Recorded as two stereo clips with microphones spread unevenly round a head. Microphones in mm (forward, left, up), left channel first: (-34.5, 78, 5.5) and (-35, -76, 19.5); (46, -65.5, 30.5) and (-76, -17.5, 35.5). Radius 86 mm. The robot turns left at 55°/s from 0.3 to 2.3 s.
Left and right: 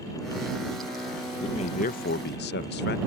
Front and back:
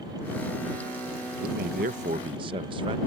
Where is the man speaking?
150° left; by 3.0 s 100° left.